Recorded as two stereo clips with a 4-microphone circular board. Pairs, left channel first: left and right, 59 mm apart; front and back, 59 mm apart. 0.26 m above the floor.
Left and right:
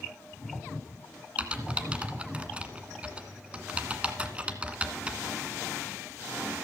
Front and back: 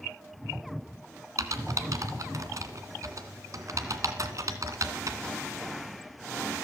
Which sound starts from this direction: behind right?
Typing on a keyboard, at 1.4 s.